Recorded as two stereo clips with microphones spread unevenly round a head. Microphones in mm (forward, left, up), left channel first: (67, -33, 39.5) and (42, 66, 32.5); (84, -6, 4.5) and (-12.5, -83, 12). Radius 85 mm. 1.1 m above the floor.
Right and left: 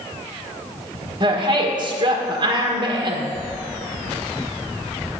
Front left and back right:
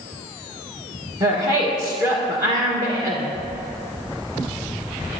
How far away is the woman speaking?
About 1.5 m.